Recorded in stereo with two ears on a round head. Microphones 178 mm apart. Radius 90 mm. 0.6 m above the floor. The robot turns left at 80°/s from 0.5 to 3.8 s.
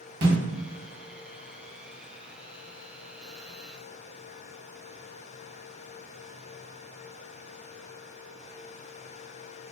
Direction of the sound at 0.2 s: 50° right (ahead or behind).